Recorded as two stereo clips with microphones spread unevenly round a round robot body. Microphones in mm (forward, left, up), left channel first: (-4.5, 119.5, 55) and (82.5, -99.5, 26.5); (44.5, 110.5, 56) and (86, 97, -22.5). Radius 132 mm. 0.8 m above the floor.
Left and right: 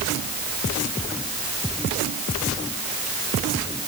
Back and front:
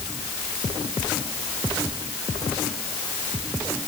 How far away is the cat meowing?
No cat meowing in this recording.